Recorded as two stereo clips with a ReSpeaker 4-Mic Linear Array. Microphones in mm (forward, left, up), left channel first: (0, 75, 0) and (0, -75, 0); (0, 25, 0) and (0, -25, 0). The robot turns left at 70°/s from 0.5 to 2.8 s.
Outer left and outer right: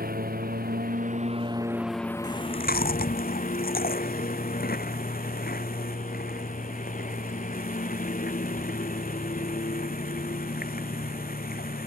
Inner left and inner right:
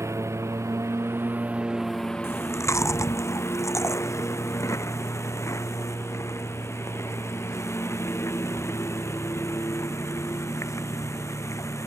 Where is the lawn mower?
80° right; by 11.9 s 120° left.